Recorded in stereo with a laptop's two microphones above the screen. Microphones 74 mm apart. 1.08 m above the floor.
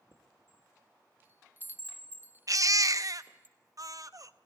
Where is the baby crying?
50° right (ahead or behind), 0.6 m.